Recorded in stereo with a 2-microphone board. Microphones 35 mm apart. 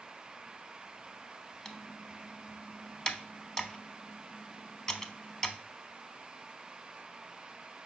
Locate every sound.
1.6 s typing on a keyboard: 20° left (ahead or behind), 0.6 m